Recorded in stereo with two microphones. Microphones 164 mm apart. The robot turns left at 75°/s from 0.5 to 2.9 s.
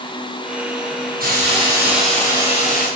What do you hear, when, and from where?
1.2 s a hiss: 120° right, 8.5 m; by 2.9 s 115° left, 8.5 m